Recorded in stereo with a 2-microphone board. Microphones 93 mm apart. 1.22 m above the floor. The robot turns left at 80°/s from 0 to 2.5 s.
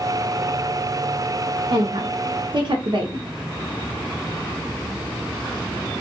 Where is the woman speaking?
60° right (ahead or behind), 0.8 m; by 3.3 s 55° right (ahead or behind), 0.8 m.